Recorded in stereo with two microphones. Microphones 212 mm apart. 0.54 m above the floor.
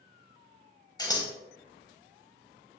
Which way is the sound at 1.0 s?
20° left (ahead or behind).